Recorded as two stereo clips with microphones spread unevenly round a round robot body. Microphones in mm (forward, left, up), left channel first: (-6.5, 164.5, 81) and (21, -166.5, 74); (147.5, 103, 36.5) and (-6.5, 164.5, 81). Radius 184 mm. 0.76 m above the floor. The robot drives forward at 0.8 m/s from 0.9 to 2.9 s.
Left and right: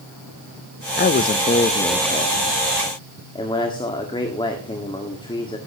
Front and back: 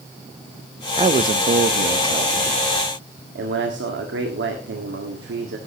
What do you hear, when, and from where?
1.0 s a man speaking: 105° left, 0.6 m; by 5.6 s 170° left, 1.7 m